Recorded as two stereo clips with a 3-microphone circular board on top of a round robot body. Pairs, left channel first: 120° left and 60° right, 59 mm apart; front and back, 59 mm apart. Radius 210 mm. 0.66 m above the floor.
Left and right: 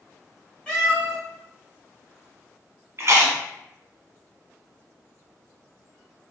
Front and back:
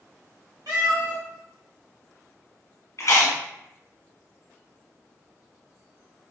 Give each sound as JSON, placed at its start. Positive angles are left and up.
{"t": 0.7, "sound": "a cat meowing", "azimuth_deg": -165, "distance_m": 0.9}
{"t": 3.0, "sound": "chewing", "azimuth_deg": -25, "distance_m": 1.1}